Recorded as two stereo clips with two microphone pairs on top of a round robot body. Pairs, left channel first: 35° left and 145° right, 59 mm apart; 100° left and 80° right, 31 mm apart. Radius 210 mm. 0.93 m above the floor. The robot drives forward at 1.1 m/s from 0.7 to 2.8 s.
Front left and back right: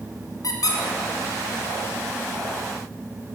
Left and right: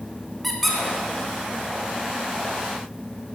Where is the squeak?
10° left, 1.1 m.